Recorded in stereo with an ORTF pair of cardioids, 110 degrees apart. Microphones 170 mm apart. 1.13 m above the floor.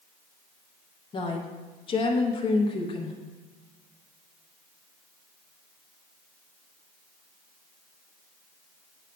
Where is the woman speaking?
30° left, 0.9 m.